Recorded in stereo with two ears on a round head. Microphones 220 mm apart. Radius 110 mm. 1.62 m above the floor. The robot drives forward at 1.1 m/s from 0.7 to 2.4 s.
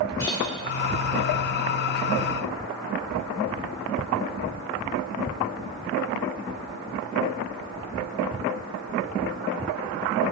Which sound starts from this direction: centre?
A clink, at 0.2 s.